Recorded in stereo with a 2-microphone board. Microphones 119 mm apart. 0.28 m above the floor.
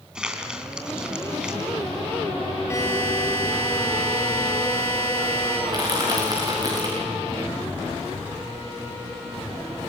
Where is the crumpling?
10° right (ahead or behind), 3 m.